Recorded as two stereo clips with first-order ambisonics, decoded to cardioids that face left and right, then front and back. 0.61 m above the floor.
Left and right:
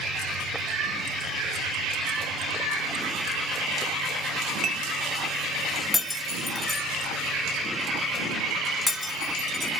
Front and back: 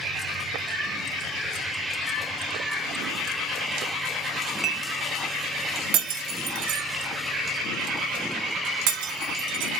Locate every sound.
4.6 s dishes clattering: 110° right, 0.6 m
5.9 s breaking glass: 170° left, 1.1 m